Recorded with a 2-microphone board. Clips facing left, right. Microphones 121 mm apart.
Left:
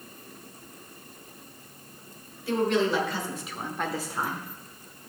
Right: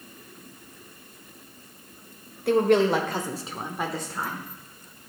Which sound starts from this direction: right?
A woman speaking, at 2.5 s.